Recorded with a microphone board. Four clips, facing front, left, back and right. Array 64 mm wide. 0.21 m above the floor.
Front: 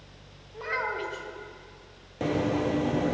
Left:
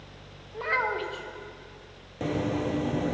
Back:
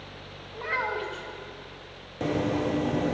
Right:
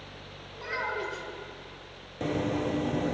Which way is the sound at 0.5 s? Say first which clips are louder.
Left 5 dB, back 1 dB; 105° left.